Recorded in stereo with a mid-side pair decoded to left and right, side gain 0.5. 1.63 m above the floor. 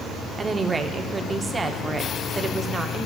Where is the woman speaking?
25° right, 0.7 m.